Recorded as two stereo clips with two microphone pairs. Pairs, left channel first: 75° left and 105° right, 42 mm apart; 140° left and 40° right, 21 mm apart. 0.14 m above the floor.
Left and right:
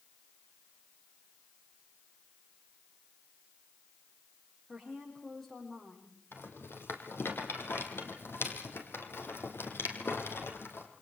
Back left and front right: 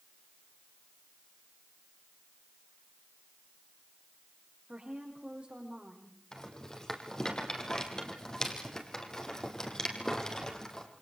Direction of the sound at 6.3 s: 75° left.